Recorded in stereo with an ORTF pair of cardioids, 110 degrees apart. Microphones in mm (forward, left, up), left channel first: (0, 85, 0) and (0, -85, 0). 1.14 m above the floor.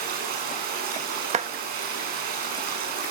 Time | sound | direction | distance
0.0 | running water | 65° right | 7.5 m
1.3 | a clap | 40° right | 1.2 m